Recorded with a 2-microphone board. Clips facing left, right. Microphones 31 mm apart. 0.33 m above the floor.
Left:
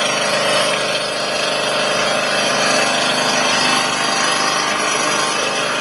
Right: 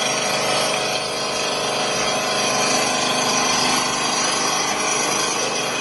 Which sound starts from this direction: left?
An engine running, at 0.0 s.